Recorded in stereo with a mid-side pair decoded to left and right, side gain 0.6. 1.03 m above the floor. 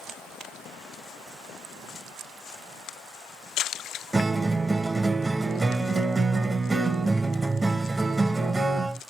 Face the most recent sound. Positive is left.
turn(degrees=-15)